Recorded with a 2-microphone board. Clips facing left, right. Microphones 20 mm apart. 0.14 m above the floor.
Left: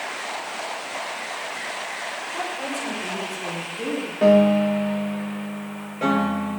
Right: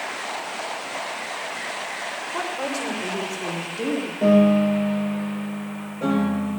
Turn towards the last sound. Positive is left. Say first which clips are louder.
# left 1 dB
turn(degrees=55)  # may be behind; listen again after turning